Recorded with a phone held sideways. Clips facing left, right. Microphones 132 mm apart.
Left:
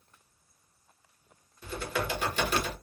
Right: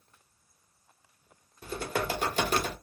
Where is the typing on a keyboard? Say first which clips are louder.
Right 1 dB; 40° right (ahead or behind), 0.8 m.